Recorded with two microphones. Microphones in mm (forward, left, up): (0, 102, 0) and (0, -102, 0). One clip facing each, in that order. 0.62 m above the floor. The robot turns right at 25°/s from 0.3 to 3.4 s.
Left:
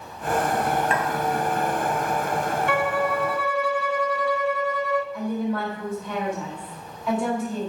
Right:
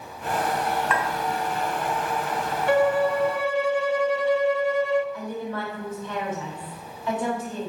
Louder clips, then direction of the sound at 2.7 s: Right 7 dB; 45° right (ahead or behind).